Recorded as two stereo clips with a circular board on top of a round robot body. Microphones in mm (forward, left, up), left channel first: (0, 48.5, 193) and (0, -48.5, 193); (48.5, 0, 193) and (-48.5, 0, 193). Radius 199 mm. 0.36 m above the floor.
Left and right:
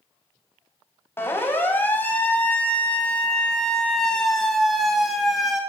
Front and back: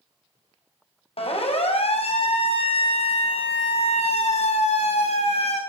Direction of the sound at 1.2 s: 20° left.